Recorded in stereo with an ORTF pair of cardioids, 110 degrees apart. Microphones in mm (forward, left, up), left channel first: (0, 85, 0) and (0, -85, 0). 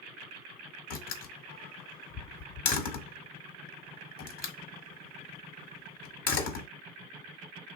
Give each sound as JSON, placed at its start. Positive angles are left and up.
{"t": 0.9, "sound": "a door slam", "azimuth_deg": 60, "distance_m": 1.0}